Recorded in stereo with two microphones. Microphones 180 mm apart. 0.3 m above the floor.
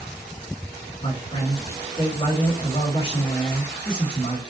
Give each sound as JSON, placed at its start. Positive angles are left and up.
{"t": 1.0, "sound": "a man speaking", "side_deg": 25, "distance_m": 1.1}